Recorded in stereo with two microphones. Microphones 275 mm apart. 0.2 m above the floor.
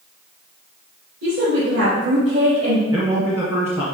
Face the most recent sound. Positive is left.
turn(degrees=-10)  # may be behind; listen again after turning